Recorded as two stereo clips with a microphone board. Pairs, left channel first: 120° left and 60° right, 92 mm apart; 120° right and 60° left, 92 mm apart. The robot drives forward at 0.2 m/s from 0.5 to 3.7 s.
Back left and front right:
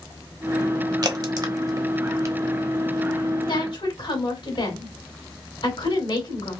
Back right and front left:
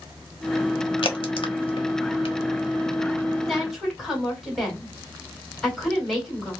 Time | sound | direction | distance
1.0 | a crack | 100° right | 0.9 m
3.5 | a woman speaking | 145° left | 2.5 m